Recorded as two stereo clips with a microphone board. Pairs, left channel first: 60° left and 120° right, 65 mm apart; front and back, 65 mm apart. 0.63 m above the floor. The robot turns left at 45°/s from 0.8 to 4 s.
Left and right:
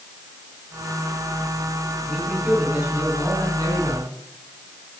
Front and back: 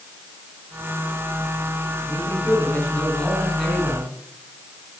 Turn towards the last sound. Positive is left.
turn(degrees=-110)